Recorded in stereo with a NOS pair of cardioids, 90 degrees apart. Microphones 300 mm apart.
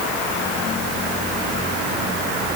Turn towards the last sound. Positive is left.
No sound to turn to.